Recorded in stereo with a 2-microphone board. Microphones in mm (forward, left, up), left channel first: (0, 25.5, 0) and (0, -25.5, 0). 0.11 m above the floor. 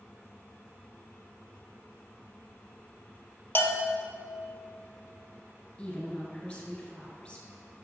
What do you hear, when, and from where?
3.5 s a bell: 45° left (ahead or behind), 0.7 m
5.8 s a woman speaking: 20° left (ahead or behind), 1.5 m